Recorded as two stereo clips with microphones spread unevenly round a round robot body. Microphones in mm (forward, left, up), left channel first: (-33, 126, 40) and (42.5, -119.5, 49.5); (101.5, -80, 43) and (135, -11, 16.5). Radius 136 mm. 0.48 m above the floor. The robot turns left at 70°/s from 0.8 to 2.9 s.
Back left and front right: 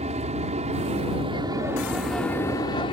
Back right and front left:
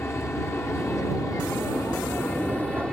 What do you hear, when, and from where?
0.0 s an aircraft: 75° right; by 2.9 s 135° left